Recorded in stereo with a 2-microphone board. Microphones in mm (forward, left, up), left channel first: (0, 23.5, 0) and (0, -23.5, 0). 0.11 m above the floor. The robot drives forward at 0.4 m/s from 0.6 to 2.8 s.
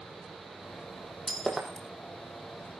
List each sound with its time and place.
1.3 s breaking glass: 5° left (ahead or behind), 2.5 m